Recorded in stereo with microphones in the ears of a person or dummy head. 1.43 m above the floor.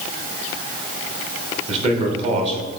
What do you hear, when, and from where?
1.7 s a man speaking: 40° right (ahead or behind), 1.4 m